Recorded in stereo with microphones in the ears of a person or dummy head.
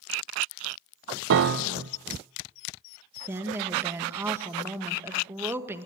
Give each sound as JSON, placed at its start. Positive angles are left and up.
{"t": 1.3, "sound": "a piano", "side_deg": -65, "distance_m": 0.8}
{"t": 3.3, "sound": "a woman speaking", "side_deg": -15, "distance_m": 1.7}